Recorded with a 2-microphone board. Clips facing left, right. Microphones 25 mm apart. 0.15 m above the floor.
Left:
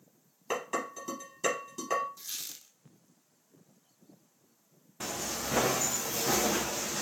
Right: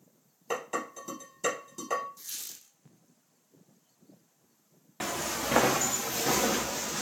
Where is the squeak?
30° left (ahead or behind), 0.6 m.